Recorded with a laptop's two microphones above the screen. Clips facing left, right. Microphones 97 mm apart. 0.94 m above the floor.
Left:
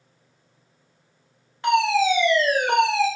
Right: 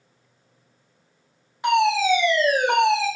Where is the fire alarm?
10° right (ahead or behind), 1.1 m.